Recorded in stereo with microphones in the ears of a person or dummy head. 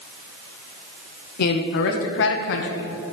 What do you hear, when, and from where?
1.4 s a man speaking: 55° left (ahead or behind), 1.3 m